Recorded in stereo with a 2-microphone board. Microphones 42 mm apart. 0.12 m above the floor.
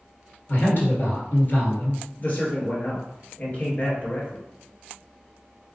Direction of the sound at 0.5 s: 50° left (ahead or behind).